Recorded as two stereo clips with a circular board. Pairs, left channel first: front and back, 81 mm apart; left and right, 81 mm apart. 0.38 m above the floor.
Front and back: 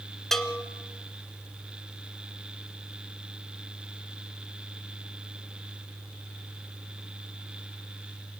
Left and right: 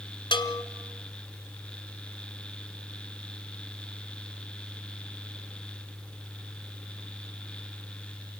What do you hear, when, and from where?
0.3 s a bell: 85° left, 1.6 m